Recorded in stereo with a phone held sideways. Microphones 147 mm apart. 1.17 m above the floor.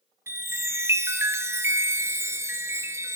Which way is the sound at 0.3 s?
15° right (ahead or behind).